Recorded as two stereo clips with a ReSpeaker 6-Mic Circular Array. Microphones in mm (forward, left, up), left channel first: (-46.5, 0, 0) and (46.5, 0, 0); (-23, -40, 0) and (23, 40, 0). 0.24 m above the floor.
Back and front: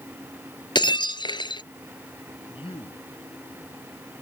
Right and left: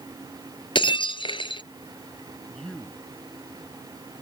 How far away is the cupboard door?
I don't hear a cupboard door.